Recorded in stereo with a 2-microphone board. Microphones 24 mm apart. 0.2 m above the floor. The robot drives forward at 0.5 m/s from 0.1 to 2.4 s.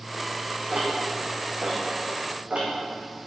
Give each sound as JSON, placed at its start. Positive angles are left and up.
{"t": 0.7, "sound": "ticking", "side_deg": -75, "distance_m": 2.5}